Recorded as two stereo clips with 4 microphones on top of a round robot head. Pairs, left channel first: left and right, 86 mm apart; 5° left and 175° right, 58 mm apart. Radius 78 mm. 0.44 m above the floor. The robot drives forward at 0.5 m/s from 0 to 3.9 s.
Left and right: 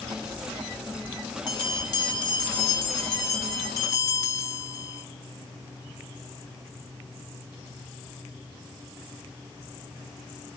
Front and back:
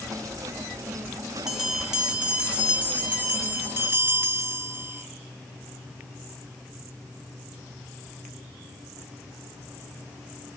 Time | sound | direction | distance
1.5 | a bell | 105° left | 1.9 m